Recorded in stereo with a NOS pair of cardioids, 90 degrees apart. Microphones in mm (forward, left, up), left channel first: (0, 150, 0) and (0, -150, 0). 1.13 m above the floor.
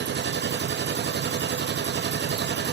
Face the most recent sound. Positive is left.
turn(degrees=-40)